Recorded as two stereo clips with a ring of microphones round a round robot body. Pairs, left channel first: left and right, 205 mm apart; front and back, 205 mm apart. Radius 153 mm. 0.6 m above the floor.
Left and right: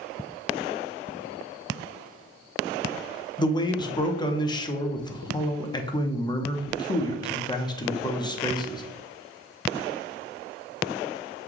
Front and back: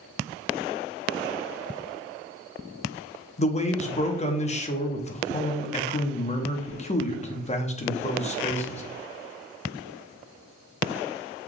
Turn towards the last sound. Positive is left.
turn(degrees=30)